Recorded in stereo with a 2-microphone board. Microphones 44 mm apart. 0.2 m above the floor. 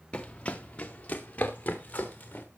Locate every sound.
0.1 s running footsteps: 20° left (ahead or behind), 1.3 m; by 2.5 s 35° left (ahead or behind), 3.5 m